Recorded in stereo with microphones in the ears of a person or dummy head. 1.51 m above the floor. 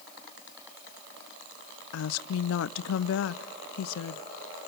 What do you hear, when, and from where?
1.9 s a woman speaking: 70° left (ahead or behind), 0.5 m